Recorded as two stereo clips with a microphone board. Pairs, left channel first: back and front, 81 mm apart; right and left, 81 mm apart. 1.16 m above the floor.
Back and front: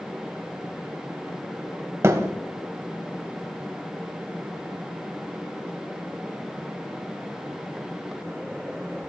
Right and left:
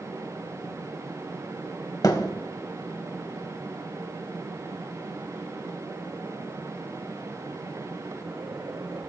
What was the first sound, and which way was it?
A thud, 50° right.